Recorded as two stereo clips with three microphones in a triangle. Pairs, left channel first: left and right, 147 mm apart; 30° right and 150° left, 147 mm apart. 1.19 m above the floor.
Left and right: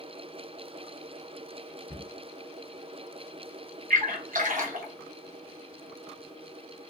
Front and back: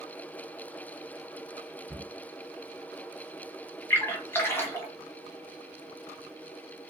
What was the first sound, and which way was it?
A cupboard door, 105° right.